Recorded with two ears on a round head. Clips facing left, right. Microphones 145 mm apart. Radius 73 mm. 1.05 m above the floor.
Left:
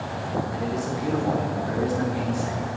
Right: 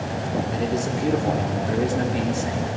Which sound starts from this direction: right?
A man speaking, at 0.5 s.